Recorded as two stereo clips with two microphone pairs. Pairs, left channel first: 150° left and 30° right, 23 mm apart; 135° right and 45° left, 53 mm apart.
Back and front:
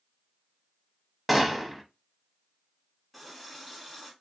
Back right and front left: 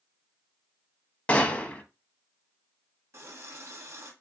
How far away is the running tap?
About 1.1 m.